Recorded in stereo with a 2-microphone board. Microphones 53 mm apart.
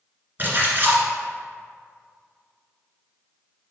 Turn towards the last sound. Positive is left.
turn(degrees=-40)  # may be behind; listen again after turning